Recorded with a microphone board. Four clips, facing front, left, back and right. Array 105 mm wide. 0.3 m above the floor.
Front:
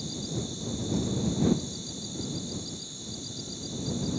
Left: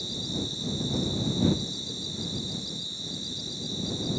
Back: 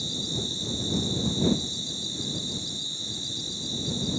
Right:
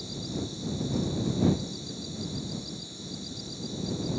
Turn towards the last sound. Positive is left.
turn(degrees=155)